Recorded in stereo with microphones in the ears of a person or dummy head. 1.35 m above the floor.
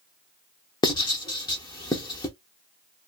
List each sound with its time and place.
0.8 s writing: 20° left (ahead or behind), 0.8 m